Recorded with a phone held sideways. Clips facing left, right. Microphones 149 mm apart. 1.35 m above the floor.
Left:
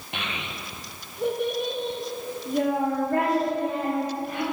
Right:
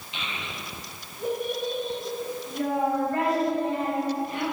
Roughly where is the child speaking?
Left.